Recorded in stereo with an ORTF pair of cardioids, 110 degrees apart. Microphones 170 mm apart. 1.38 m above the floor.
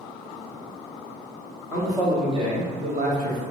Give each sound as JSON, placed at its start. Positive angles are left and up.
{"t": 1.7, "sound": "a man speaking", "azimuth_deg": -15, "distance_m": 1.5}